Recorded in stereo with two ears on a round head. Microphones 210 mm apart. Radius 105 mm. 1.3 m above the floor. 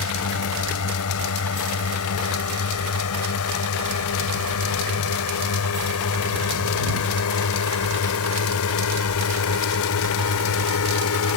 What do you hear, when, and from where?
0.0 s a drone: 70° left (ahead or behind); by 11.4 s 65° left (ahead or behind)